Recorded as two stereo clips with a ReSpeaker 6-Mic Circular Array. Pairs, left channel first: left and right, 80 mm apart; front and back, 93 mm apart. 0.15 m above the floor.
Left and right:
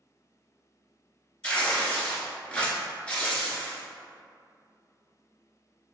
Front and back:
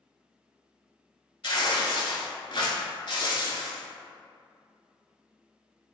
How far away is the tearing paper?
About 0.7 m.